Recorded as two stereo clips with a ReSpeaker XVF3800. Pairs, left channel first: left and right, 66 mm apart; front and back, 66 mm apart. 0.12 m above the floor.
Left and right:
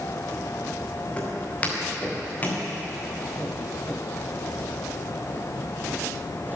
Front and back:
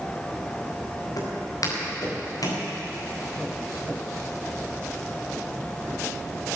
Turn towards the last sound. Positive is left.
turn(degrees=25)